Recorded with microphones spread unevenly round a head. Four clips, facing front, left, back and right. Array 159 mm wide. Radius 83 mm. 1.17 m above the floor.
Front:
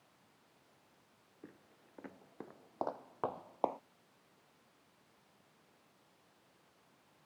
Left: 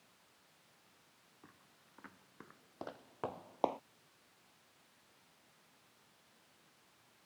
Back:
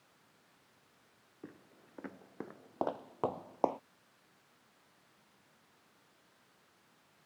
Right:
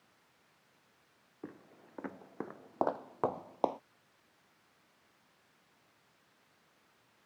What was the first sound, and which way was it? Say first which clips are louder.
Footsteps: right 16 dB, back 5 dB; 100° right.